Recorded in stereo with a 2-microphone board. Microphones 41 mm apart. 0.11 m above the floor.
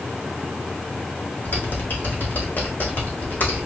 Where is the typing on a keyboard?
50° left (ahead or behind), 2.5 m.